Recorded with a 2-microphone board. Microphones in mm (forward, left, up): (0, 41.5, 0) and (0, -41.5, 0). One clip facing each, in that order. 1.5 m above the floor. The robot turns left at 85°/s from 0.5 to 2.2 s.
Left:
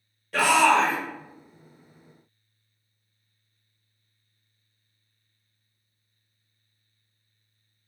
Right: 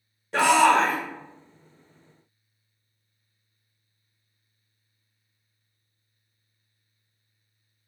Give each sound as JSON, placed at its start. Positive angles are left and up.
{"t": 0.3, "sound": "a shout", "azimuth_deg": -25, "distance_m": 0.7}